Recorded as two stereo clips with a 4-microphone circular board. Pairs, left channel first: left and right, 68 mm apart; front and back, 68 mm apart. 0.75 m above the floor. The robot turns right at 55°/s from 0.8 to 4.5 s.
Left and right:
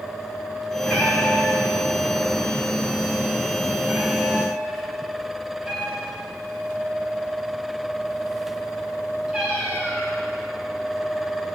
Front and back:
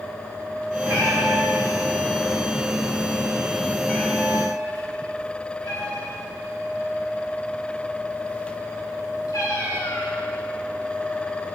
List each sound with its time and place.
0.8 s a cat meowing: 145° left, 5.5 m; by 10.1 s 10° right, 5.5 m